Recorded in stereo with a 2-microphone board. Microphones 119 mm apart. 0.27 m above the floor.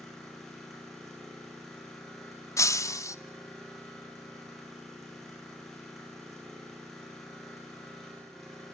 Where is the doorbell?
I don't hear a doorbell.